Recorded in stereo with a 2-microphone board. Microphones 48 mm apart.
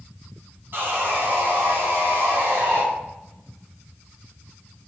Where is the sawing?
45° right (ahead or behind), 1.9 m.